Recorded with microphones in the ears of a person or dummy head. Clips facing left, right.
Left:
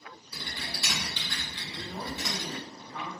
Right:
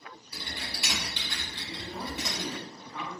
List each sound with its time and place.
0.3 s typing on a keyboard: 15° right (ahead or behind), 1.4 m
1.7 s a man speaking: 60° right (ahead or behind), 1.6 m